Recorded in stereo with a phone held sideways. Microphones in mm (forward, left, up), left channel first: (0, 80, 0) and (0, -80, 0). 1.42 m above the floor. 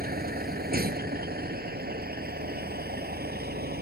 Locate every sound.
0.0 s a vehicle: 70° right (ahead or behind); by 3.8 s 75° right (ahead or behind)